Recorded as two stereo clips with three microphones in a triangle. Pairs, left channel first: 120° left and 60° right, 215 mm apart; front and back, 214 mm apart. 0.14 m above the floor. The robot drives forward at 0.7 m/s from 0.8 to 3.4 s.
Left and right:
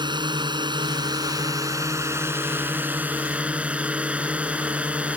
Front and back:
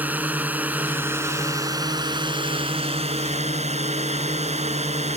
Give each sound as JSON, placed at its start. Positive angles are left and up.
{"t": 0.0, "sound": "a drone", "azimuth_deg": -105}